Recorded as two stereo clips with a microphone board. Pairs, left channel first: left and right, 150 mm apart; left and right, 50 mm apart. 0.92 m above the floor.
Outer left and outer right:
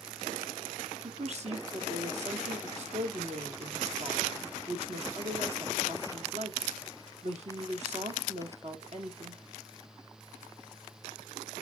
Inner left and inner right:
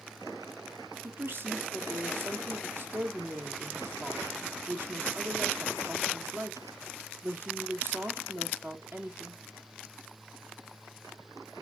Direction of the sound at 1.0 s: 50° right (ahead or behind).